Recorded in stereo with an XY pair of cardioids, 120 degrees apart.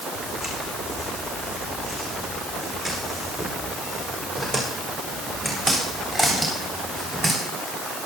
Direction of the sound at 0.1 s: 40° left.